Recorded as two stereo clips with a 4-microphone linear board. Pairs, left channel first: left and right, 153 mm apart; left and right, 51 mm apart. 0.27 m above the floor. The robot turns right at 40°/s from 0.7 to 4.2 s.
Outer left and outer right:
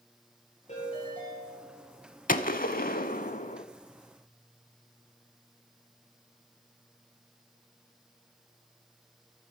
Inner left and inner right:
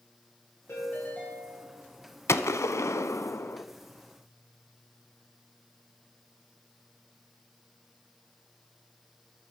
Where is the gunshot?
70° left, 0.6 m; by 3.6 s 120° left, 0.6 m.